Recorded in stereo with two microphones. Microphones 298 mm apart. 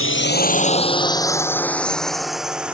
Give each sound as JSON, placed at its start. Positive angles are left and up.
{"t": 0.0, "sound": "a drone", "side_deg": 45}